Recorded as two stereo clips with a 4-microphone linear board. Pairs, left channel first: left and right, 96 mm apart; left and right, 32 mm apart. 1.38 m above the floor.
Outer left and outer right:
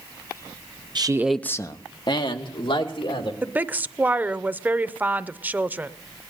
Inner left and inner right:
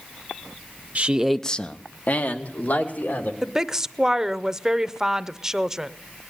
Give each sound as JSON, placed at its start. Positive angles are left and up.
{"t": 0.9, "sound": "a man speaking", "side_deg": -50, "distance_m": 0.6}
{"t": 3.4, "sound": "a woman speaking", "side_deg": -20, "distance_m": 0.5}